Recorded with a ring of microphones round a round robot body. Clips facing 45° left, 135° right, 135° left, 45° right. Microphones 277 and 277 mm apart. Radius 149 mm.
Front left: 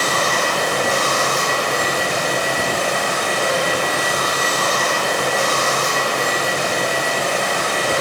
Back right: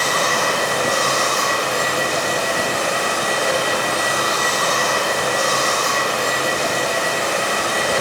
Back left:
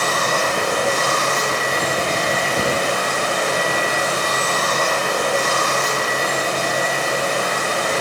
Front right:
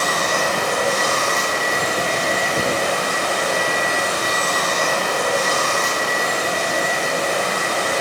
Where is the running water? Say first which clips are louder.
Even, even; 45° left, 1.0 m.